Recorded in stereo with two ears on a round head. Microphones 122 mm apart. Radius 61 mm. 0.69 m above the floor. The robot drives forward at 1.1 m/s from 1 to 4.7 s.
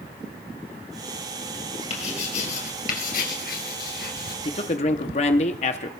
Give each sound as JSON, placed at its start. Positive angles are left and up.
{"t": 1.9, "sound": "writing", "side_deg": 45, "distance_m": 3.5}
{"t": 4.5, "sound": "a man speaking", "side_deg": 40, "distance_m": 1.0}